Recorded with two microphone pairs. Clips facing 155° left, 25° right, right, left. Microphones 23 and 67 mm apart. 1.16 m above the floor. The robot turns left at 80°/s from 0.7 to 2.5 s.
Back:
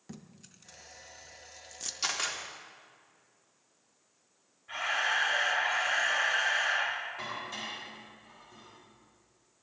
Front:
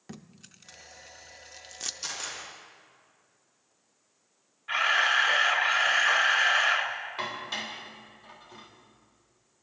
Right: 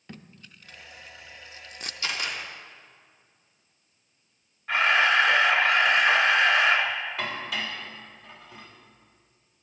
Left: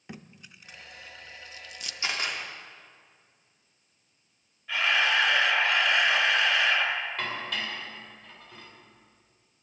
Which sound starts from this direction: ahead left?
Tape being pulled, at 0.1 s.